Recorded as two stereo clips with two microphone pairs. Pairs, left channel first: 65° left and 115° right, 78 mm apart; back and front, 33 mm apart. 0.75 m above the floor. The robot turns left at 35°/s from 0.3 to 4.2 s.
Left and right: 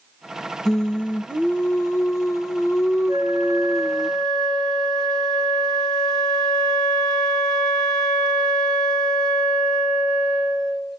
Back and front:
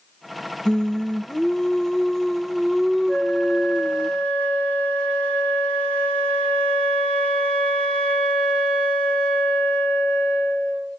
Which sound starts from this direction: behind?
A flute, at 3.1 s.